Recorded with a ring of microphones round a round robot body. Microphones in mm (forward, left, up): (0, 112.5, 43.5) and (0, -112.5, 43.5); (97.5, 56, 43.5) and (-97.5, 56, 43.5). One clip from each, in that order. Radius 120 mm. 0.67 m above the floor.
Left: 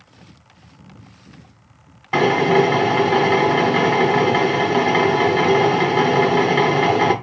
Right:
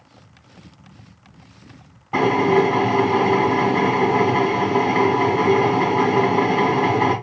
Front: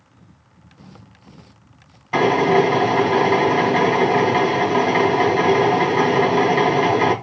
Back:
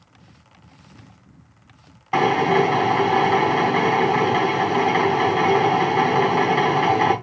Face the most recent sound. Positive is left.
turn(degrees=100)